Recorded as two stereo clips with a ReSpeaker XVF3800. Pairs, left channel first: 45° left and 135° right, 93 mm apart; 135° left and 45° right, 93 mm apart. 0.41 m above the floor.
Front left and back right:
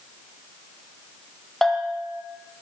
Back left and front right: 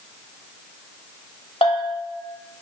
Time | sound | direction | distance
1.6 | a bell | 135° left | 0.8 m